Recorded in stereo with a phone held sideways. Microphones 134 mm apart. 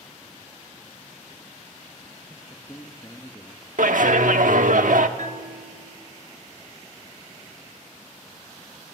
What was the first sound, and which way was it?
A man speaking, 25° left (ahead or behind).